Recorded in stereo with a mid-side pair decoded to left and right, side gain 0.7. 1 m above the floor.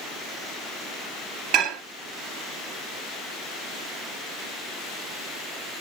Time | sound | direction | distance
1.5 | dishes clattering | 60° right | 1.1 m